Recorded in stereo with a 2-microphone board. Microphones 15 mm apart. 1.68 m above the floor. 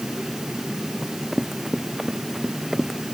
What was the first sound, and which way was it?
Running footsteps, 25° right (ahead or behind).